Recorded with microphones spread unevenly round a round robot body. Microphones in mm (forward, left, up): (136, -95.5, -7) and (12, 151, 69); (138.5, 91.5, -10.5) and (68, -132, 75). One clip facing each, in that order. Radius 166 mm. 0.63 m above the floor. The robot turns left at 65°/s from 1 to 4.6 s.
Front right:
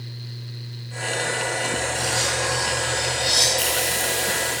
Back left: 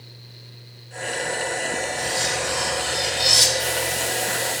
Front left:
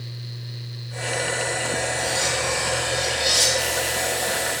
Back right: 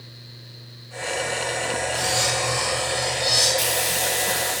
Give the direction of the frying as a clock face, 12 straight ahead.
3 o'clock.